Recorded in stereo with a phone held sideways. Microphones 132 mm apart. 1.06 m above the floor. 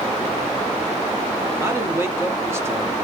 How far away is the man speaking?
About 0.8 m.